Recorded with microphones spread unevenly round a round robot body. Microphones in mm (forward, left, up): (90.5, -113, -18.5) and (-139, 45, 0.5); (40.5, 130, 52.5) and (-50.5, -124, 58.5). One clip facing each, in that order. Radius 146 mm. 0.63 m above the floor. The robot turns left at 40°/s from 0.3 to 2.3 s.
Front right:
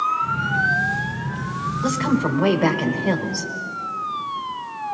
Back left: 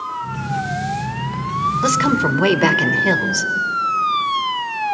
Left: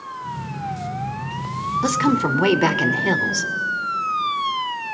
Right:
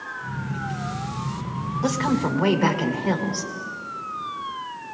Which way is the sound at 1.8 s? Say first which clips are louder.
Back left 2 dB, left 3 dB; 125° left.